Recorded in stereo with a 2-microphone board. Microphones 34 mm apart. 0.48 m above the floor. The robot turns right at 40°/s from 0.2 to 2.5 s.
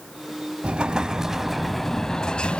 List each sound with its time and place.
0.6 s an explosion: 40° right, 0.6 m; by 2.6 s 35° left, 0.6 m